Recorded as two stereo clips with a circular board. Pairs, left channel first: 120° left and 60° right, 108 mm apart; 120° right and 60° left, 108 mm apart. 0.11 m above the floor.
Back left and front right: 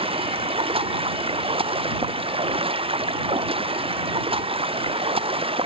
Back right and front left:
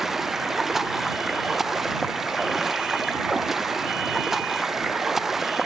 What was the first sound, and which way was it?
Running water, 30° right.